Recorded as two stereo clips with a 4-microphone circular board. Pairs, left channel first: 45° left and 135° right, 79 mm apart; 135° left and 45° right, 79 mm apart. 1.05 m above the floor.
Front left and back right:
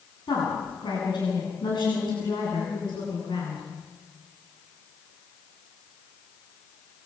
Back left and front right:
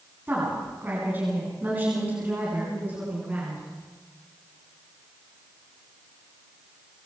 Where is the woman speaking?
20° left, 9 m; by 3.6 s 25° left, 11 m.